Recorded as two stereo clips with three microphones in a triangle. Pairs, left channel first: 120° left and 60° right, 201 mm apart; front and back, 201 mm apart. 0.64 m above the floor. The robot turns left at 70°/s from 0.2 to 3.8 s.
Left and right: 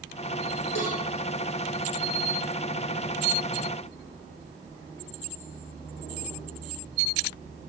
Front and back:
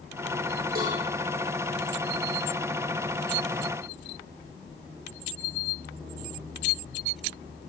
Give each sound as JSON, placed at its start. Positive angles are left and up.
{"t": 0.8, "sound": "a cowbell", "azimuth_deg": 135, "distance_m": 7.0}